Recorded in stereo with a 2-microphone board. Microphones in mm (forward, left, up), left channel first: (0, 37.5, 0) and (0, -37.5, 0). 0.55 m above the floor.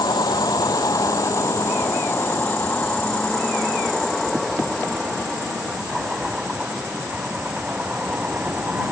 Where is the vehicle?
65° left (ahead or behind); by 8.9 s 20° right (ahead or behind).